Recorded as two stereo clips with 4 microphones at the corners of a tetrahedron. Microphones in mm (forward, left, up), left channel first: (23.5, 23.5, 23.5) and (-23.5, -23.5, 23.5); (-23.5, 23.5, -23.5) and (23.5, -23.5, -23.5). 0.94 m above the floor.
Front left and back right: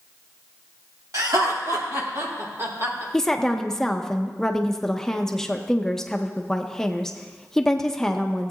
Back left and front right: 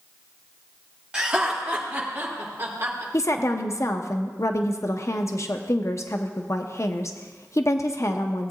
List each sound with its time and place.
1.1 s laughter: 120° right, 2.5 m; by 3.0 s 95° right, 3.5 m
3.1 s a woman speaking: 120° left, 0.7 m